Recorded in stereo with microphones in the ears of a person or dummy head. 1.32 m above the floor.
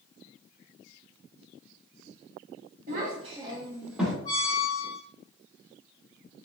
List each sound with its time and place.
2.9 s a child speaking: 55° right (ahead or behind), 0.8 m; by 4.2 s 5° right (ahead or behind), 1.1 m
4.2 s a squeak: 30° left (ahead or behind), 0.7 m